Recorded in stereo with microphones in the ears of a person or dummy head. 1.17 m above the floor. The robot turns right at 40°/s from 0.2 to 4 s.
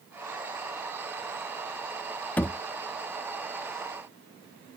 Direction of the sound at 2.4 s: 10° left (ahead or behind).